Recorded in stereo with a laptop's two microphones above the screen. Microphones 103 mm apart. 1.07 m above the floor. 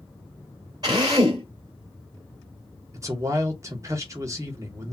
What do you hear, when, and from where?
0.8 s a drill: 40° right (ahead or behind), 2 m
2.9 s a man speaking: 30° right (ahead or behind), 1.0 m